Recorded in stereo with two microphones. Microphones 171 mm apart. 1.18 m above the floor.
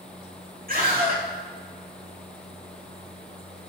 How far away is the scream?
About 6 m.